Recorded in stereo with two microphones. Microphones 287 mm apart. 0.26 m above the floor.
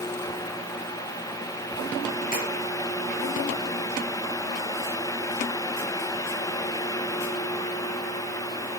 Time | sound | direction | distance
2.3 | tapping | 30° left (ahead or behind) | 5 m